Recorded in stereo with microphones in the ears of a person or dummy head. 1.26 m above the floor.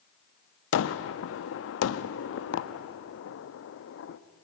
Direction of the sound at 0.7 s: 70° left (ahead or behind).